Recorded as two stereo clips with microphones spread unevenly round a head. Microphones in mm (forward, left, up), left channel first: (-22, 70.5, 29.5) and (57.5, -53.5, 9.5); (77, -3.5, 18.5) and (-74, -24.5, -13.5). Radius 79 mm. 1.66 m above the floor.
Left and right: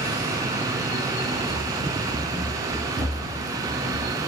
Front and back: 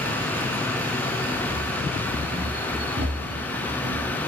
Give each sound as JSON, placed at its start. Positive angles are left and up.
{"t": 1.5, "sound": "running footsteps", "azimuth_deg": -160, "distance_m": 8.0}